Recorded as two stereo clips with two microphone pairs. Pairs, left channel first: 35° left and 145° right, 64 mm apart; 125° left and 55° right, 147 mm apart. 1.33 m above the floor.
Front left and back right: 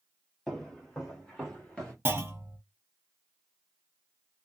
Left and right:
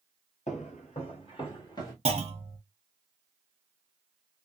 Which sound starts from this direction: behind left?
Footsteps, at 0.5 s.